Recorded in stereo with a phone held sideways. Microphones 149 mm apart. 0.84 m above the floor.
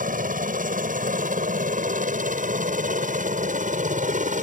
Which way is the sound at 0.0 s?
65° right (ahead or behind).